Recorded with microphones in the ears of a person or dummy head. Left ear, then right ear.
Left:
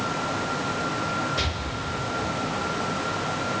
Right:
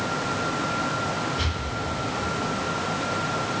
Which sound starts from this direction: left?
An explosion, at 1.4 s.